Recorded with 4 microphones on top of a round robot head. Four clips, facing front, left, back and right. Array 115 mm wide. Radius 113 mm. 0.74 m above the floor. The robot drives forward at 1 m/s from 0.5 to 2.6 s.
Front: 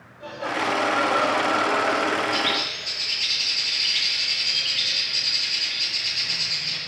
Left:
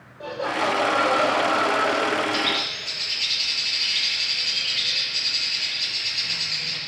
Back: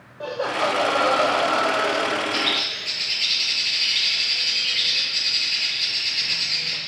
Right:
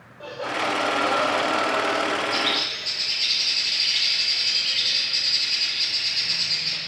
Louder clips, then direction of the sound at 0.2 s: Left 3 dB, back 3 dB; 170° left.